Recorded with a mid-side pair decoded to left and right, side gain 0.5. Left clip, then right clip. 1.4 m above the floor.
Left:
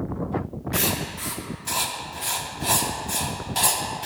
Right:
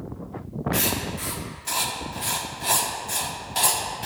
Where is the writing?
Straight ahead, 1.3 m.